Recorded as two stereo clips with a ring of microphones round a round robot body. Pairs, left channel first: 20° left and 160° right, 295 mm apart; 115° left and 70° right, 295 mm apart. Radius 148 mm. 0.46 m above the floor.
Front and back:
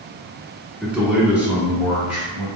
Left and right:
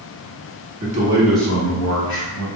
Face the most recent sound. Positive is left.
turn(degrees=115)